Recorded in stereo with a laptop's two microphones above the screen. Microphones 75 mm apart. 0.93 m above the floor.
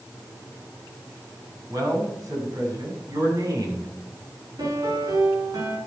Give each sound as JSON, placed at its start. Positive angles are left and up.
{"t": 1.7, "sound": "a man speaking", "side_deg": -50, "distance_m": 5.5}
{"t": 4.6, "sound": "a piano", "side_deg": -65, "distance_m": 5.5}